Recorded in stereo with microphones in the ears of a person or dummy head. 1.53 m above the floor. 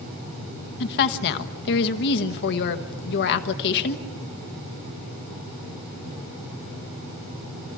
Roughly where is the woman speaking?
Left.